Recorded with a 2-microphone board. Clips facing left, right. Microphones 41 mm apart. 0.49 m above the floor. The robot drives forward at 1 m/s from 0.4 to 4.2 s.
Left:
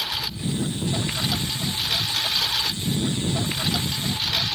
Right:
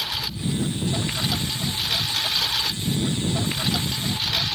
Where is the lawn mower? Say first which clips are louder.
Even; 5° left (ahead or behind).